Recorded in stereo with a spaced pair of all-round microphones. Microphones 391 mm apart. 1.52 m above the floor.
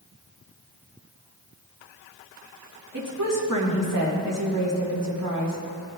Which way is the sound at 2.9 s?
55° right (ahead or behind).